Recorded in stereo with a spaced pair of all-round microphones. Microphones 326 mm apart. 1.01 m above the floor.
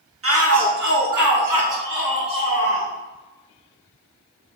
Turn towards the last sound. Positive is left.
turn(degrees=-85)